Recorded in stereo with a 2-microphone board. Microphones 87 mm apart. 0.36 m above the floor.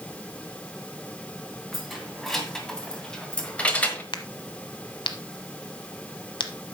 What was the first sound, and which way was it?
Keys jangling, centre (ahead or behind).